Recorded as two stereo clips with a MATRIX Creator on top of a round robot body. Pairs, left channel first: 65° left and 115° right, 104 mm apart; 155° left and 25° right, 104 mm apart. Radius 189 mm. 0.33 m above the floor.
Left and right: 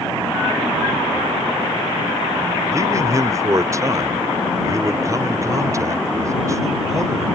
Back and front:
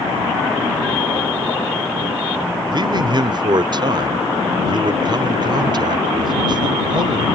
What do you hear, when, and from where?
2.7 s a man speaking: 60° right